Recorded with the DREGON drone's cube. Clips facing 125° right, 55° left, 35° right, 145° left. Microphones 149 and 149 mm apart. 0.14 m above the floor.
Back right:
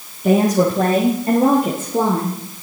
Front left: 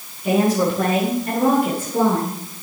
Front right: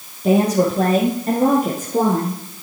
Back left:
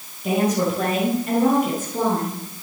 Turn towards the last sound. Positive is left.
turn(degrees=-45)